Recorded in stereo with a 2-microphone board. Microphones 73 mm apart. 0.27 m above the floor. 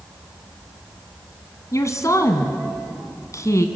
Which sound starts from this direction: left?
A woman speaking, at 1.7 s.